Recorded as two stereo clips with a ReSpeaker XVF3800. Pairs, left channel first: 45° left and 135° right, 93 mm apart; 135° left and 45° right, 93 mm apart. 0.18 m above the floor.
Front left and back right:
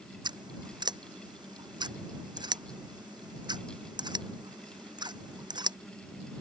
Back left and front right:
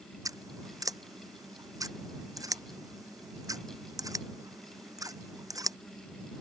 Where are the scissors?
95° right.